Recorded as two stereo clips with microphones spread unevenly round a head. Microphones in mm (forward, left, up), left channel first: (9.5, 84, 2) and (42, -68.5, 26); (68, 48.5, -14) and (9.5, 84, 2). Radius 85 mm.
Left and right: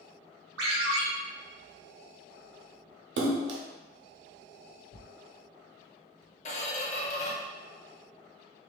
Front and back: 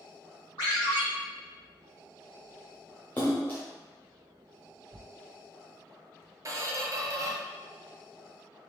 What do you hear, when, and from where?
0.6 s a ringtone: 90° right, 1.7 m
3.2 s a splash: 105° right, 0.6 m
4.9 s tearing paper: 135° left, 0.6 m
6.5 s a squeak: 155° left, 0.6 m